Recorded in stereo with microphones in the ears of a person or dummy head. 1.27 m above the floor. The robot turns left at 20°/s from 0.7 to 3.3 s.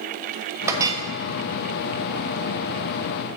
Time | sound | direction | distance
0.7 | a clink | 20° right (ahead or behind) | 1.2 m